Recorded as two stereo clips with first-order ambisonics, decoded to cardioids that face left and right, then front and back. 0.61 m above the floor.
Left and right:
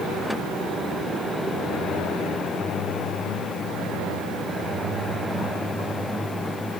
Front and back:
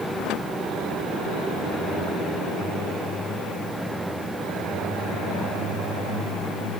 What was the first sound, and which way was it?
Only background noise.